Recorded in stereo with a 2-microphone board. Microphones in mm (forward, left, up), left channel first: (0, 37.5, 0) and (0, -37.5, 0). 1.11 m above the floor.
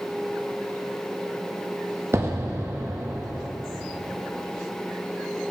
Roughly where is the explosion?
Right.